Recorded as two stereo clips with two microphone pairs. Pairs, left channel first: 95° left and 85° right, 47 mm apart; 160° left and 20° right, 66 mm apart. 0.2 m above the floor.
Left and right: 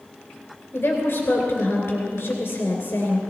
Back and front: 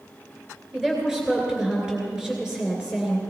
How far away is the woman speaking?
About 2.5 m.